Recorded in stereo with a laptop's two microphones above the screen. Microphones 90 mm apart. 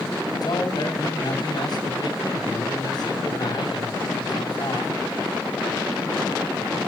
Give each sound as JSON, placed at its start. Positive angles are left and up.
{"t": 0.4, "sound": "a man speaking", "side_deg": 55, "distance_m": 7.0}